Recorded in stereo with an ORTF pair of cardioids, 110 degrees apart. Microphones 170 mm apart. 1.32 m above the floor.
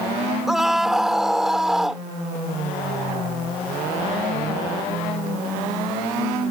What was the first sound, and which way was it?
A scream, straight ahead.